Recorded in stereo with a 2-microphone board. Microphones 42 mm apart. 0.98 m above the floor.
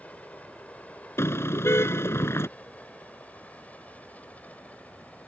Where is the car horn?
85° left.